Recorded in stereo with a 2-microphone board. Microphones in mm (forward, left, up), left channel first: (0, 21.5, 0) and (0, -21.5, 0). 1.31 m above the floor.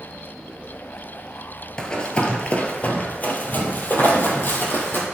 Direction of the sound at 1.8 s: 20° left (ahead or behind).